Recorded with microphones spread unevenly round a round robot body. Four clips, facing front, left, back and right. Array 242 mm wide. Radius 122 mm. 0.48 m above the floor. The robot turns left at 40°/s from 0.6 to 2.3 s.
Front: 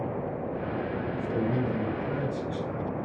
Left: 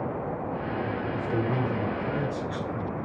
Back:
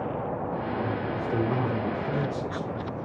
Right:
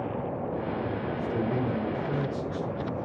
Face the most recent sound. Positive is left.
turn(degrees=75)